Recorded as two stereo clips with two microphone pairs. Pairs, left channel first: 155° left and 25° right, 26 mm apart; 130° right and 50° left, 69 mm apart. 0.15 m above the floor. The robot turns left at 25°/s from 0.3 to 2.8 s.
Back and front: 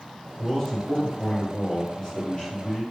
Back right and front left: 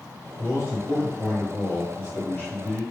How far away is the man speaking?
About 2.0 m.